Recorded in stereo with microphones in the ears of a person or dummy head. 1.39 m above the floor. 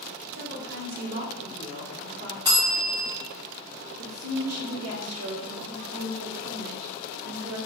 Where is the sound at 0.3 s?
45° right (ahead or behind), 1.2 m.